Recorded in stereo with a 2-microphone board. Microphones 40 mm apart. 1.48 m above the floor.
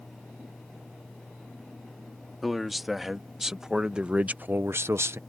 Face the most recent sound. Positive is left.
turn(degrees=-75)  # may be behind; listen again after turning